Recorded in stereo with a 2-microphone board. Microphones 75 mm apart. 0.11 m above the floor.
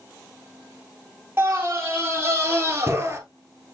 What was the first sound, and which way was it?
A scream, 30° right (ahead or behind).